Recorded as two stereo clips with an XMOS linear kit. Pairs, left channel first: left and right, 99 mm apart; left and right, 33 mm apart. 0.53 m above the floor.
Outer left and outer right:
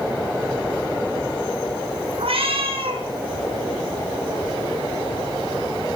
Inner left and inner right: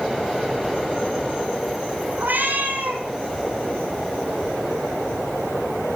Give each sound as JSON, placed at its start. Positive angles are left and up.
{"t": 2.2, "sound": "a cat meowing", "side_deg": -75, "distance_m": 2.0}